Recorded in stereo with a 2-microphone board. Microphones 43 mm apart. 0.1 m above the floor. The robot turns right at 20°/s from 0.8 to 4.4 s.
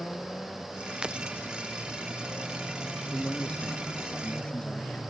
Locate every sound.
1.0 s breaking glass: 20° right (ahead or behind); by 1.2 s 15° right (ahead or behind)
3.1 s a man speaking: 15° left (ahead or behind); by 5.0 s 25° left (ahead or behind)